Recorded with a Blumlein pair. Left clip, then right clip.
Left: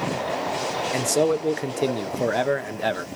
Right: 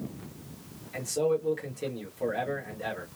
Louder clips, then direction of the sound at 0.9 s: Left 5 dB; 35° left.